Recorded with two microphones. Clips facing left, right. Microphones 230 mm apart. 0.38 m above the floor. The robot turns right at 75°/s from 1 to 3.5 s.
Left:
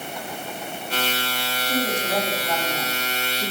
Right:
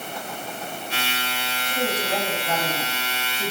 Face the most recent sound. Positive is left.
turn(degrees=-100)